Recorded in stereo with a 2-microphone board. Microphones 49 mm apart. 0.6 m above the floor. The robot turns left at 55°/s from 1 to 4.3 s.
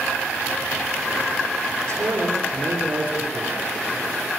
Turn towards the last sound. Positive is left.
turn(degrees=155)